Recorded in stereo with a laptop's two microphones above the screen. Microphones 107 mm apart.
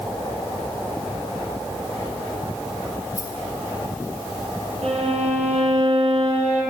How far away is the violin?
About 3 m.